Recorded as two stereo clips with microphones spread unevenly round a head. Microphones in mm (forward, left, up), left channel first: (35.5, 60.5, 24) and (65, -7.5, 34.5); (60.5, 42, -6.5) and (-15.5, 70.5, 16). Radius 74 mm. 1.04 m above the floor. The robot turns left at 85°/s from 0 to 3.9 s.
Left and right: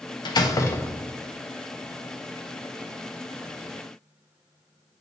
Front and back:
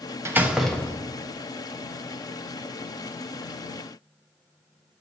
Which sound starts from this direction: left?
A door slam, at 0.2 s.